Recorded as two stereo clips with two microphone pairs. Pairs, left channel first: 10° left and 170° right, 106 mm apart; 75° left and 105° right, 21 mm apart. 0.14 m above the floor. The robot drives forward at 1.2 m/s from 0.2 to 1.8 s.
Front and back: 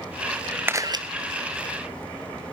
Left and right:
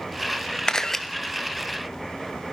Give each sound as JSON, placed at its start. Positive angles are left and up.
{"t": 0.7, "sound": "a camera shutter", "azimuth_deg": 120, "distance_m": 0.6}